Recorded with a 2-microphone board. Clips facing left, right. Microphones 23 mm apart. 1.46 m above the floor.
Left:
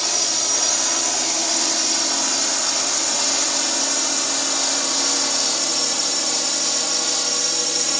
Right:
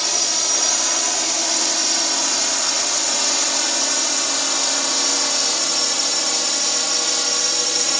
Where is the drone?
10° right (ahead or behind); by 8.0 s 15° right (ahead or behind).